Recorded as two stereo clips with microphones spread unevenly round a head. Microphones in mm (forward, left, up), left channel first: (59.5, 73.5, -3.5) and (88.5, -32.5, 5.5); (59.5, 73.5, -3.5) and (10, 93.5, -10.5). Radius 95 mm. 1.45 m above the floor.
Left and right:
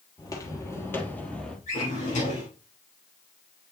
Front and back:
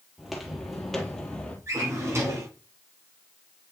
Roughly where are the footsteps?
Ahead left.